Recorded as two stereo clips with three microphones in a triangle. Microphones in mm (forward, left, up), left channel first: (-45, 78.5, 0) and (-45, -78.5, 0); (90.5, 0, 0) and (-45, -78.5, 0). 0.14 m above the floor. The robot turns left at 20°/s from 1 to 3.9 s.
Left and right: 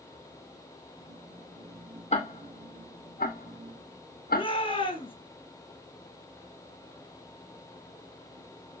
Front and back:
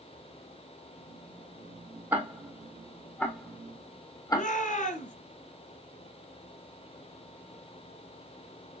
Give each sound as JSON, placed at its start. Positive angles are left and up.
{"t": 2.1, "sound": "ticking", "azimuth_deg": 130, "distance_m": 1.8}
{"t": 4.3, "sound": "a shout", "azimuth_deg": 45, "distance_m": 2.5}